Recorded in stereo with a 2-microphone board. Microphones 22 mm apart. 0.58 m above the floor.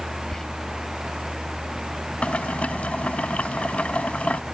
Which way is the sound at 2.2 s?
60° left (ahead or behind).